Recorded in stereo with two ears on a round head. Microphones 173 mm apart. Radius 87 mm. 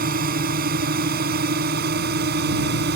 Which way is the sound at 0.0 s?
45° right (ahead or behind).